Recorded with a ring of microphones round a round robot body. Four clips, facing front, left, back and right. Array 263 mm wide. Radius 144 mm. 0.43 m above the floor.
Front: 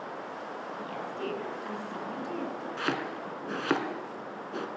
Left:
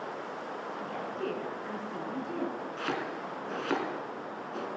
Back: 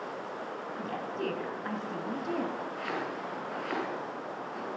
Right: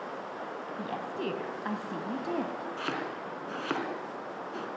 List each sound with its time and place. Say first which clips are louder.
0.8 s a woman speaking: right 2 dB, back 2 dB; 110° right, 3 m
2.8 s chopping: left 2 dB, front 2 dB; 5° right, 3 m